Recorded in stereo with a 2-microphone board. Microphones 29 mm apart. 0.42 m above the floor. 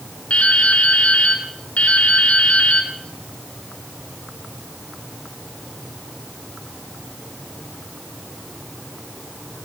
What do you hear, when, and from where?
0.3 s dripping: 45° left (ahead or behind), 5 m